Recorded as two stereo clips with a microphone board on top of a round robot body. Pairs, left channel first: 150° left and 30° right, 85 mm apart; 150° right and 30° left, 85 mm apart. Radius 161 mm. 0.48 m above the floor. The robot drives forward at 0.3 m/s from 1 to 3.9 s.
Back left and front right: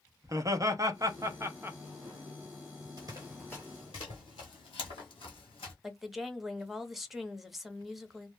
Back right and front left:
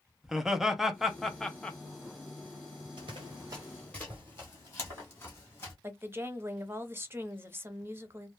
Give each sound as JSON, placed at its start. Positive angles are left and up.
{"t": 0.2, "sound": "laughter", "azimuth_deg": -55, "distance_m": 0.8}
{"t": 3.0, "sound": "running footsteps", "azimuth_deg": 15, "distance_m": 0.7}
{"t": 5.8, "sound": "a woman speaking", "azimuth_deg": 55, "distance_m": 0.8}